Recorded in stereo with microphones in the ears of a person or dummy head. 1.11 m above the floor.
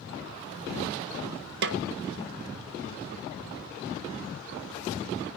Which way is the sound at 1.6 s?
60° right (ahead or behind).